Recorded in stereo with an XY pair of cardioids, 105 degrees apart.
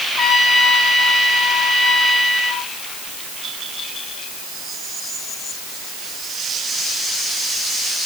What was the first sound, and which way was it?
A trumpet, 40° left.